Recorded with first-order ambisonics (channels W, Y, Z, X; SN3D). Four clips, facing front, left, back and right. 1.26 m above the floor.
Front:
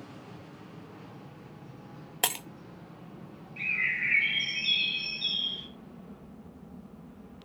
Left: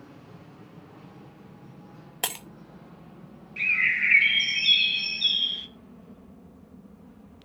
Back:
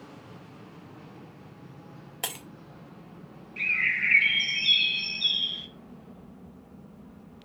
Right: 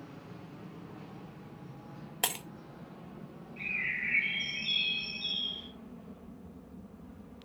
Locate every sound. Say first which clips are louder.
2.2 s breaking glass: left 2 dB, front 5 dB; 20° left, 0.6 m
3.6 s a bird: left 11 dB, back 4 dB; 110° left, 1.0 m